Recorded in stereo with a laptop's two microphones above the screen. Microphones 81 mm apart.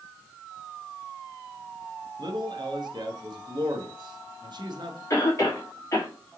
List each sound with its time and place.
2.2 s a man speaking: 60° right (ahead or behind), 0.9 m
5.1 s a cough: 40° left (ahead or behind), 1.9 m